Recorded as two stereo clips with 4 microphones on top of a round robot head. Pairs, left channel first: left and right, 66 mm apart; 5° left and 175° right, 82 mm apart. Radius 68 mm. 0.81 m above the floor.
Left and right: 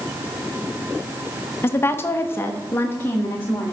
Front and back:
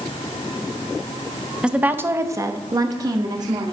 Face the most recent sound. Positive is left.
turn(degrees=155)